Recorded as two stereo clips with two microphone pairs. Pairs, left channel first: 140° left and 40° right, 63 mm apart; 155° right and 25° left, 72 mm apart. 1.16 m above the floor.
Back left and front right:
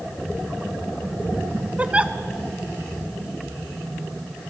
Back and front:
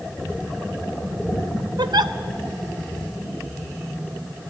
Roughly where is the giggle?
Ahead left.